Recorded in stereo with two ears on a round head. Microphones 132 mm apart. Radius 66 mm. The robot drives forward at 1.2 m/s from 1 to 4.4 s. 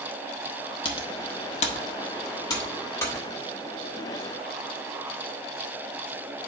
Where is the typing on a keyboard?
35° left (ahead or behind), 1.1 m; by 3.2 s 15° left (ahead or behind), 2 m.